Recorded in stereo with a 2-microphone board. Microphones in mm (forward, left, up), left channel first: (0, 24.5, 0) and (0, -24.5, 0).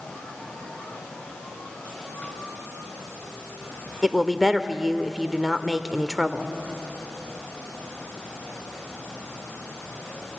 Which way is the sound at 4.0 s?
Centre (ahead or behind).